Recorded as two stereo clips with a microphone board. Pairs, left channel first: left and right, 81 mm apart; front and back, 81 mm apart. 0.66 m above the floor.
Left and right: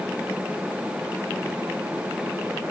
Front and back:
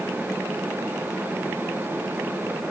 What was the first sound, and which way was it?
Only background noise.